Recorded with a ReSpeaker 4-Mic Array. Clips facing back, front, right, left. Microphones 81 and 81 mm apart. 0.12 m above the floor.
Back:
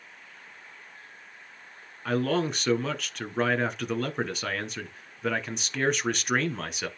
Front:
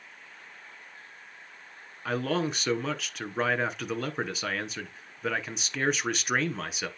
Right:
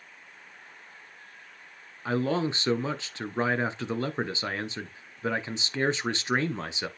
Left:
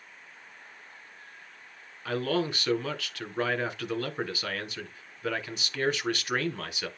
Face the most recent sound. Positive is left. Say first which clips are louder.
# back 2 dB, right 2 dB
turn(degrees=-85)